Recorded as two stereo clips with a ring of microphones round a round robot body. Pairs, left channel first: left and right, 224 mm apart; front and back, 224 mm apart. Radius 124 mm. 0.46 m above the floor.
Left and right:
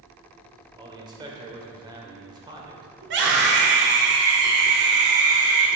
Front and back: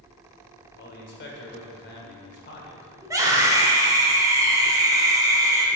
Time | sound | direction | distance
0.8 | a man speaking | 25° right | 1.9 m
3.0 | a scream | 110° right | 2 m